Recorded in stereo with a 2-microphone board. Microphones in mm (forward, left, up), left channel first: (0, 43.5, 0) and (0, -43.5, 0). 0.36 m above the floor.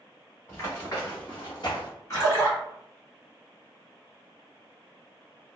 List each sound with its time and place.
0.5 s running footsteps: 30° left (ahead or behind), 1.8 m; by 1.9 s 55° left (ahead or behind), 1.4 m
2.1 s a splash: 35° left (ahead or behind), 1.6 m